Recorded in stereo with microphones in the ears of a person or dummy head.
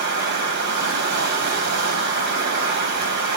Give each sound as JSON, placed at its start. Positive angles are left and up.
{"t": 0.0, "sound": "running water", "side_deg": -60, "distance_m": 3.0}